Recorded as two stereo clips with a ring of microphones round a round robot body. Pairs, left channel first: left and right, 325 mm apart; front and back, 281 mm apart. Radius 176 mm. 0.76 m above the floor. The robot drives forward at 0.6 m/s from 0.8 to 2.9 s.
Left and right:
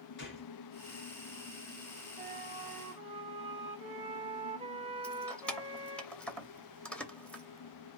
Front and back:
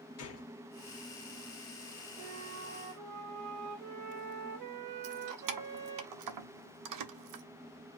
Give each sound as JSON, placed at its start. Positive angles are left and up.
{"t": 0.2, "sound": "a gunshot", "azimuth_deg": 35, "distance_m": 2.0}
{"t": 2.2, "sound": "a flute", "azimuth_deg": -150, "distance_m": 0.6}
{"t": 5.0, "sound": "keys jangling", "azimuth_deg": 175, "distance_m": 0.8}